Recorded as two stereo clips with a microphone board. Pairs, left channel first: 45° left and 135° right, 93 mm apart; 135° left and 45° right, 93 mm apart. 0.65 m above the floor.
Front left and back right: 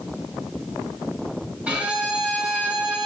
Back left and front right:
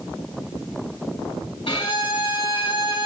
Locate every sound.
1.7 s a violin: 150° left, 3 m